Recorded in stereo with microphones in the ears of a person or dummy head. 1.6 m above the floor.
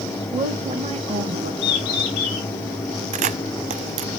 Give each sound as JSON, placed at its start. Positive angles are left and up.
{"t": 0.3, "sound": "a woman speaking", "side_deg": -10, "distance_m": 2.0}
{"t": 1.6, "sound": "a bird", "side_deg": 55, "distance_m": 5.5}
{"t": 3.1, "sound": "a camera shutter", "side_deg": -35, "distance_m": 0.6}